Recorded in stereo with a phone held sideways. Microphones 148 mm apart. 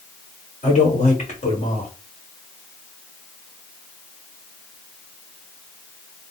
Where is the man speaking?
50° left (ahead or behind), 1.5 m.